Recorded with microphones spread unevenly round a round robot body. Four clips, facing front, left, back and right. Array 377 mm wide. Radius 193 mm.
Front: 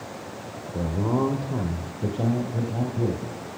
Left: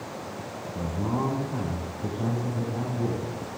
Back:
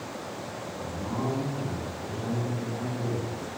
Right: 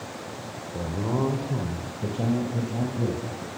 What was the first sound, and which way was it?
A man speaking, 20° right.